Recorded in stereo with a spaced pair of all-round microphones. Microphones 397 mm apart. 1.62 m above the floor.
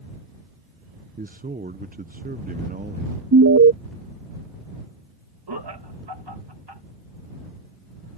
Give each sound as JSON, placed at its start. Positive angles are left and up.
{"t": 1.2, "sound": "a man speaking", "side_deg": -20}
{"t": 3.3, "sound": "an alarm", "side_deg": -40}
{"t": 5.5, "sound": "laughter", "side_deg": -80}